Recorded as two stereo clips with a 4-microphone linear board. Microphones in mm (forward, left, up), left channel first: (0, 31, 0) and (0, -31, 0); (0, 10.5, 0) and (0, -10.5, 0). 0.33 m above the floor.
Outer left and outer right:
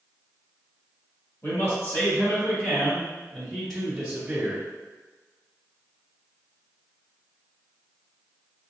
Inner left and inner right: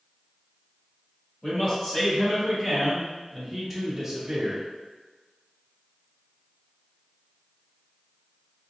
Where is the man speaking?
45° left (ahead or behind), 1.9 m; by 4.6 s 15° right (ahead or behind), 1.5 m.